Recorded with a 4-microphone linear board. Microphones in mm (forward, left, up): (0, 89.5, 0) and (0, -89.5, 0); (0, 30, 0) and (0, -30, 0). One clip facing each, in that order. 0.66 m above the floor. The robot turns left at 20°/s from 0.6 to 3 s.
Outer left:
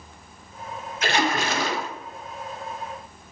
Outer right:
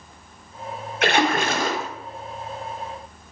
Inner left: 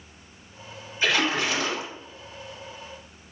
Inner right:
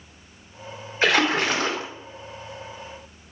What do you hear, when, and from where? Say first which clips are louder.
1.0 s a splash: outer right 4 dB, inner right 4 dB; 55° right (ahead or behind), 0.6 m; by 1.9 s 40° right (ahead or behind), 0.6 m